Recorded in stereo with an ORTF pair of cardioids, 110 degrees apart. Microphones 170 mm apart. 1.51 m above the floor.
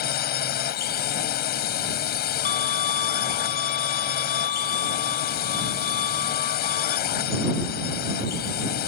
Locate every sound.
0.0 s a drone: 65° left
2.5 s a violin: 50° left